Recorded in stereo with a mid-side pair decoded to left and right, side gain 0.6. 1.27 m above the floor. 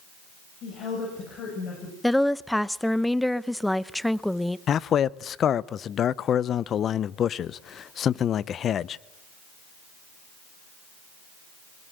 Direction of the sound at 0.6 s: 60° left.